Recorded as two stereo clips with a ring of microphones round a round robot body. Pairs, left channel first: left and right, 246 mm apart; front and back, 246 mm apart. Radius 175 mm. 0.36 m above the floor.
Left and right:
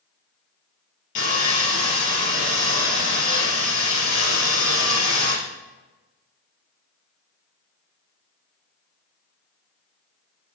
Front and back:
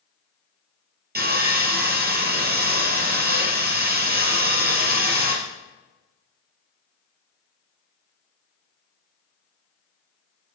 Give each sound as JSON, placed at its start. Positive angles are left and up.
{"t": 1.1, "sound": "sawing", "azimuth_deg": 130, "distance_m": 4.0}